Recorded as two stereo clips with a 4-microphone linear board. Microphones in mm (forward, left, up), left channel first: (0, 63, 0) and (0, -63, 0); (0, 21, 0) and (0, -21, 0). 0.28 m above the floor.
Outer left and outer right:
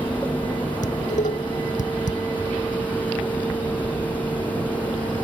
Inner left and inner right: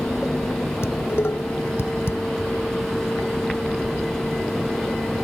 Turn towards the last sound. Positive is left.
turn(degrees=85)